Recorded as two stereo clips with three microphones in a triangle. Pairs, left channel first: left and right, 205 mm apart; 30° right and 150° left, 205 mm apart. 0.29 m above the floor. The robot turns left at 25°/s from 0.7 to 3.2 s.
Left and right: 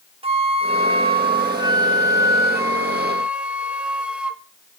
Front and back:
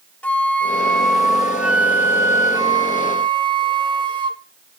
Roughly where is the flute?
Right.